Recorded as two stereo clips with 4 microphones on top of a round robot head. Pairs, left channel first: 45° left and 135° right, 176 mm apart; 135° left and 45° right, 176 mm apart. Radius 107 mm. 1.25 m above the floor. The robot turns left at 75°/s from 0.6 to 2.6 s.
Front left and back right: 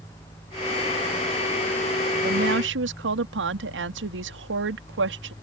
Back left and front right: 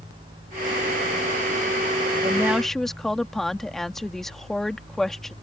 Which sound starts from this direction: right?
A woman speaking, at 2.2 s.